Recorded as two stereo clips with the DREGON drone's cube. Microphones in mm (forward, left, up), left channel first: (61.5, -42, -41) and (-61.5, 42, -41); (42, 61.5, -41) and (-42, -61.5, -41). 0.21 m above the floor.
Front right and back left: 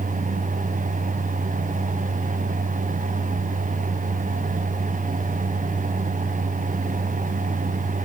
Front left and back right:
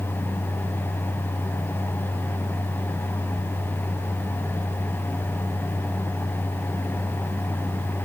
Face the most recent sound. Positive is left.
No sound to turn to.